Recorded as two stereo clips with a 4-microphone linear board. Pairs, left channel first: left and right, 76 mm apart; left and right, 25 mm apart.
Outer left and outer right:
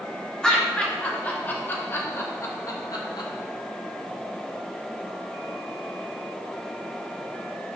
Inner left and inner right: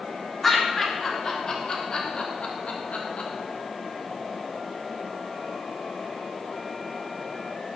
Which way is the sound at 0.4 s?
10° left (ahead or behind).